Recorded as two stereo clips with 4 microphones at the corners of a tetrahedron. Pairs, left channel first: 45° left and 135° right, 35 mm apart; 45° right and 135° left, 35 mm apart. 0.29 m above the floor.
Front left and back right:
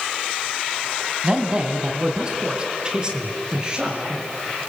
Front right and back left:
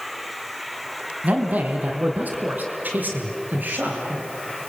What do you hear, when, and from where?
1.2 s a man speaking: 165° left, 2 m; by 4.2 s 160° left, 5 m